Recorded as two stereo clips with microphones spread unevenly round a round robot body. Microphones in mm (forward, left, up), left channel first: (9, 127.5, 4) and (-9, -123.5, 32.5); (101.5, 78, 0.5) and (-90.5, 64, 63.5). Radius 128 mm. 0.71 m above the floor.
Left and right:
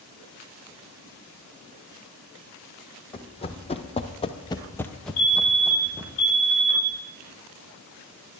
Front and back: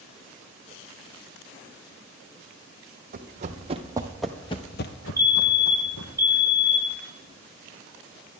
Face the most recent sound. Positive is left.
turn(degrees=70)